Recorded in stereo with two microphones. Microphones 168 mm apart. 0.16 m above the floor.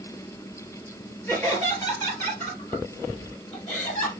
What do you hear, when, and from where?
1.3 s laughter: 15° left (ahead or behind), 3 m; by 4.1 s 10° left (ahead or behind), 4.5 m